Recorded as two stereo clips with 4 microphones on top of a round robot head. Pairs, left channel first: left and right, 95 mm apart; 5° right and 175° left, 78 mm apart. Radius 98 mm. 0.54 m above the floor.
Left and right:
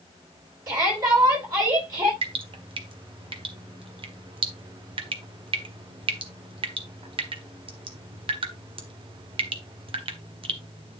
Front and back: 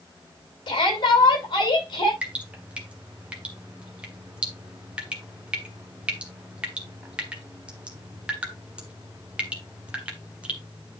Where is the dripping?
110° right, 1.7 m.